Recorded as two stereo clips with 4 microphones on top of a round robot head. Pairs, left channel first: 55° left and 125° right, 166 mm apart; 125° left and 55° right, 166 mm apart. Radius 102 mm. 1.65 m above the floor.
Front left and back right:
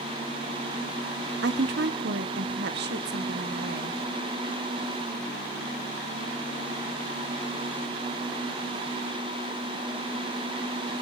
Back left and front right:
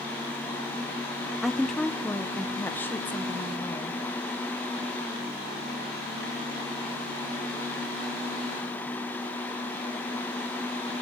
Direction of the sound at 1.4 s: 145° right.